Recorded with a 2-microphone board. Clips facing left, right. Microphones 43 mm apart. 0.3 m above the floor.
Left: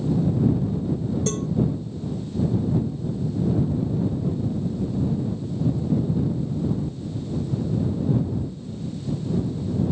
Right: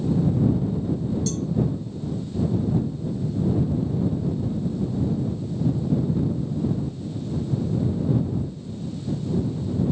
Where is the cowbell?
45° left (ahead or behind).